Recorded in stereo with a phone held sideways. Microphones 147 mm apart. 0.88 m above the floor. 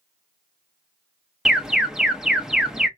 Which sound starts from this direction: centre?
An alarm, at 1.4 s.